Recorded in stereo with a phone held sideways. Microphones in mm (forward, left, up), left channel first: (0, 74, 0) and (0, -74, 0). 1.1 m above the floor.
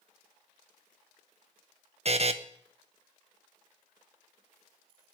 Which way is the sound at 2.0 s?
45° right (ahead or behind).